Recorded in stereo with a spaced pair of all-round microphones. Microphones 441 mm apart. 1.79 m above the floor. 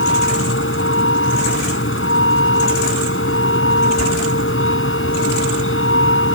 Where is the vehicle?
30° left (ahead or behind).